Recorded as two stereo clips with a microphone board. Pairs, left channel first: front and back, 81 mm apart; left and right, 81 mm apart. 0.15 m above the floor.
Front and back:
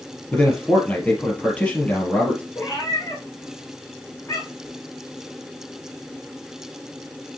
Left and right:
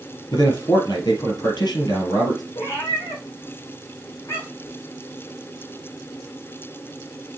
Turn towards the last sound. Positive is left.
turn(degrees=50)